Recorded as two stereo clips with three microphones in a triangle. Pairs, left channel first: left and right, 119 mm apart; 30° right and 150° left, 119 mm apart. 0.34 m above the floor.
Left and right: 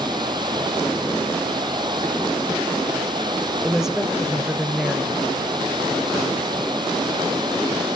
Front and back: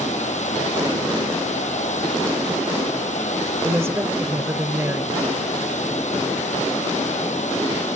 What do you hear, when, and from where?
0.0 s running water: 40° right, 1.9 m
3.6 s a woman speaking: 170° right, 0.9 m